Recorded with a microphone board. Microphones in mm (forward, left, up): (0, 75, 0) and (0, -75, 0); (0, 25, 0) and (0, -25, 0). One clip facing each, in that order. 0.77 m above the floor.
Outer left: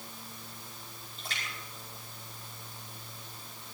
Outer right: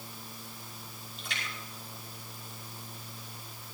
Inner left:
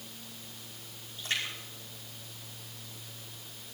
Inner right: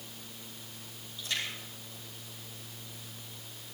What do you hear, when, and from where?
1.2 s a splash: 40° left (ahead or behind), 5 m